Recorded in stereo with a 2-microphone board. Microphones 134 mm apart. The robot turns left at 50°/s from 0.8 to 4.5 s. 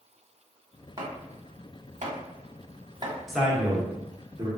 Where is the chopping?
35° right (ahead or behind), 0.9 m; by 3.2 s 25° right (ahead or behind), 0.9 m.